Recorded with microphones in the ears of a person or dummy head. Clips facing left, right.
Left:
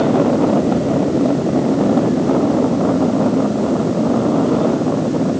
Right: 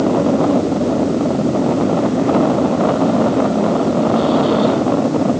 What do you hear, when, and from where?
Only background noise.